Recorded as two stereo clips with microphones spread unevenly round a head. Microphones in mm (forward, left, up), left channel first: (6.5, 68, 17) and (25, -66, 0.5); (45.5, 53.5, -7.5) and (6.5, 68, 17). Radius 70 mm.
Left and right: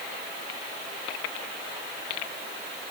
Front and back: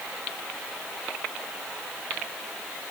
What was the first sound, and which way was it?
Only background noise.